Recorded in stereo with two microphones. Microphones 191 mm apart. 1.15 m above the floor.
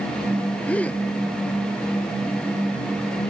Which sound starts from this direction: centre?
A gasp, at 0.7 s.